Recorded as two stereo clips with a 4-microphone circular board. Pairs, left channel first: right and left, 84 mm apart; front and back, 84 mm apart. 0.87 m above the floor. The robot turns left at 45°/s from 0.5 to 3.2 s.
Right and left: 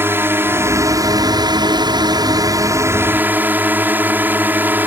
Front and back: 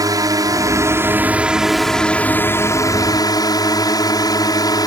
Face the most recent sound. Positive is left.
turn(degrees=25)